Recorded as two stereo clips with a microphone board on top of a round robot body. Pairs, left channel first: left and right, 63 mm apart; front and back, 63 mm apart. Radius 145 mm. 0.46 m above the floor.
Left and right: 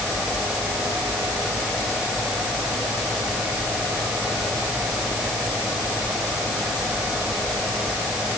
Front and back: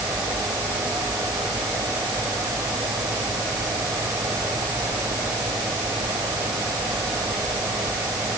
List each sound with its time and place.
Only background noise.